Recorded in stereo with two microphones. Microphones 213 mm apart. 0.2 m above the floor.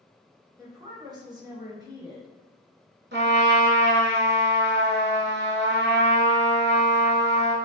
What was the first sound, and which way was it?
A woman speaking, 20° right (ahead or behind).